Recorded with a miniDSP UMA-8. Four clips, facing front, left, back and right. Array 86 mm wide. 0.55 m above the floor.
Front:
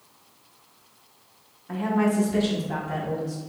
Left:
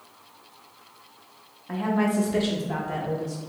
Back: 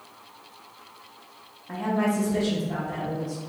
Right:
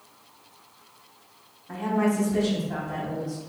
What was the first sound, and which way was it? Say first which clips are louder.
A woman speaking: even, front 2 dB; 90° left.